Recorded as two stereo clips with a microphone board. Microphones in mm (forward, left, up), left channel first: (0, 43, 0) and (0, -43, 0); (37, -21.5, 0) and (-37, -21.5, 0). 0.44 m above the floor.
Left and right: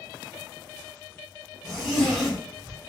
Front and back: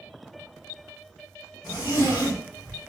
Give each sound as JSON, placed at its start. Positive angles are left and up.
{"t": 1.6, "sound": "a zipper", "azimuth_deg": 0, "distance_m": 1.4}